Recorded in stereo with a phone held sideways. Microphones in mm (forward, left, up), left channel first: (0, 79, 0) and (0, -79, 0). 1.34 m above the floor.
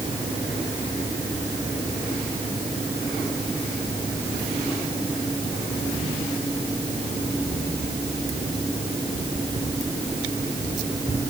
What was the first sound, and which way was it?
Only background noise.